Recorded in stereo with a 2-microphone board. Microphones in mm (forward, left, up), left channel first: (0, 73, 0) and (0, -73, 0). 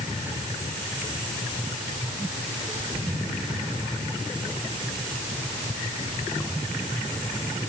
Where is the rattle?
I don't hear a rattle.